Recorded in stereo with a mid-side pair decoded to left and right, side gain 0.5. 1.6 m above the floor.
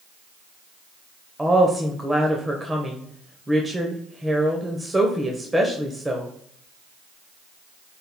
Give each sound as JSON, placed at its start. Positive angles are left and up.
{"t": 1.4, "sound": "a woman speaking", "azimuth_deg": -15, "distance_m": 1.0}